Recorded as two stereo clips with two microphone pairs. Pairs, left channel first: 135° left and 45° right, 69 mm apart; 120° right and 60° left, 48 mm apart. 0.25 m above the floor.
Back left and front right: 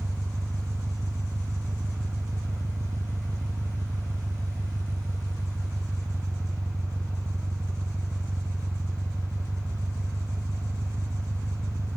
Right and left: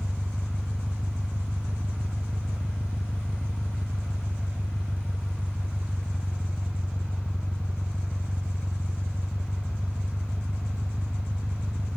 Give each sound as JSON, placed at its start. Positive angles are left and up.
{"t": 0.0, "sound": "an engine running", "azimuth_deg": -5}